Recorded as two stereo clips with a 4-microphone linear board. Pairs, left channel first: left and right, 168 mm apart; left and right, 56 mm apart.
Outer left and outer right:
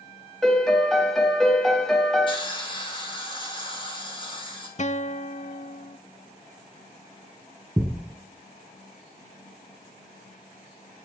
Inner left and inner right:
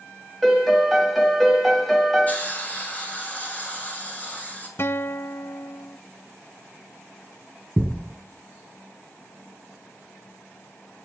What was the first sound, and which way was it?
A piano, 5° left (ahead or behind).